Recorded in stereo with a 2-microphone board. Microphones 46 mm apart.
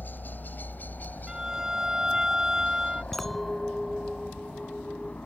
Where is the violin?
15° right (ahead or behind).